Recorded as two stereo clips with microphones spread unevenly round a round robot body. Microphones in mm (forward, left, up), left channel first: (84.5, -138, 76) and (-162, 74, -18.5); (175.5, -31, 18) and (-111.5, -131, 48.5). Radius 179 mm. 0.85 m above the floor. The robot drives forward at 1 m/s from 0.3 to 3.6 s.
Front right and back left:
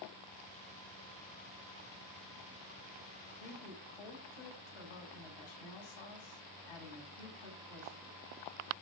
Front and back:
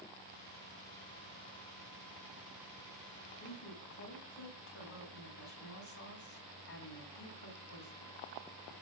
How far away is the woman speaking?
About 6 m.